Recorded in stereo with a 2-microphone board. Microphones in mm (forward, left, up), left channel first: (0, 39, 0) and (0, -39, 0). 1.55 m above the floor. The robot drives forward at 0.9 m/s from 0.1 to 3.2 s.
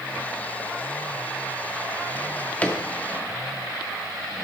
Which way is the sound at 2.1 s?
25° left (ahead or behind).